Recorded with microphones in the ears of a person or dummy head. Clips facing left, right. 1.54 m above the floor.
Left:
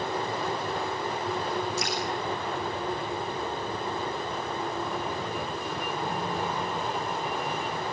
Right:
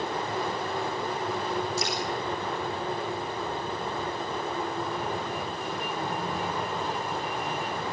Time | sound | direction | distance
1.8 | dripping | 85° right | 5 m